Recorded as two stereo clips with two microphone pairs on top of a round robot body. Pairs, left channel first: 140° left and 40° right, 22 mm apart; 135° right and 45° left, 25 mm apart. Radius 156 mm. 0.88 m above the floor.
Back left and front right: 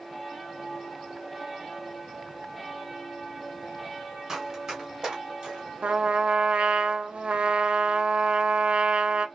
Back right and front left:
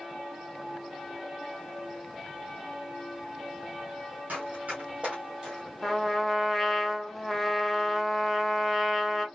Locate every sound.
4.3 s running footsteps: 30° left, 1.2 m; by 5.6 s 25° right, 0.9 m
5.8 s a trumpet: 55° right, 0.6 m